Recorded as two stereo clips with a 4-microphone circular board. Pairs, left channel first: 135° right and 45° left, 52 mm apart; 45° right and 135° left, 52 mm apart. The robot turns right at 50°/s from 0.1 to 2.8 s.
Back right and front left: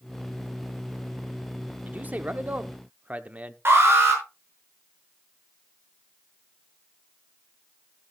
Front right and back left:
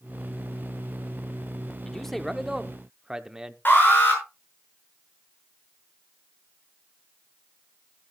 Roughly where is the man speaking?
Ahead left.